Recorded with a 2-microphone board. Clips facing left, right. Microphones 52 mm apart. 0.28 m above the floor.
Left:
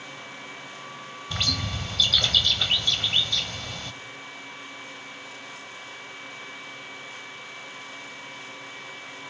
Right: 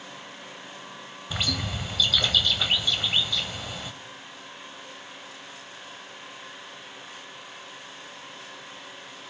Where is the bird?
10° right (ahead or behind), 0.8 m.